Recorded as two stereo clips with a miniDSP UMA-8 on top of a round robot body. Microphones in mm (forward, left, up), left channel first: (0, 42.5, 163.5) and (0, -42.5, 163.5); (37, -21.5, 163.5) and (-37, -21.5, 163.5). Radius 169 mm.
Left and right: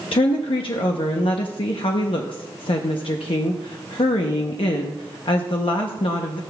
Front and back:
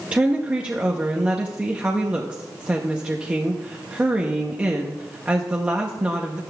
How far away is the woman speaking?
About 0.8 m.